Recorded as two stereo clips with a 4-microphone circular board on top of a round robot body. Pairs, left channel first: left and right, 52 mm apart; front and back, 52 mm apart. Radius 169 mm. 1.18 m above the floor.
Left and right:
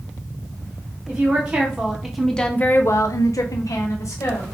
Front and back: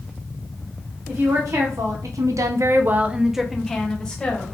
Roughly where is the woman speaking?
Behind right.